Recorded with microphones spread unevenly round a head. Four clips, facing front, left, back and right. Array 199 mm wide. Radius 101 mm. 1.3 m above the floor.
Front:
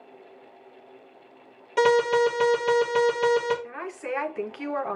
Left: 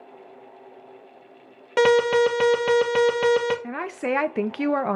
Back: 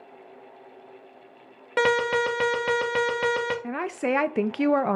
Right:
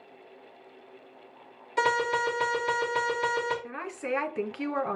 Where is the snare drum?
I don't hear a snare drum.